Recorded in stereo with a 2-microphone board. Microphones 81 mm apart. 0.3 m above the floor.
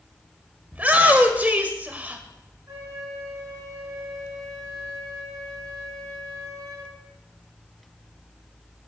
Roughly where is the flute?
Right.